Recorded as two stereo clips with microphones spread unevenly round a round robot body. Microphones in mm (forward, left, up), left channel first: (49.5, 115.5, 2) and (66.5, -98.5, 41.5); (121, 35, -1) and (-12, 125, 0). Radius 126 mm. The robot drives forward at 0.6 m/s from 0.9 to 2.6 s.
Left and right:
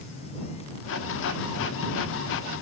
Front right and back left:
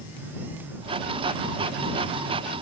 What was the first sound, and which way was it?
Only background noise.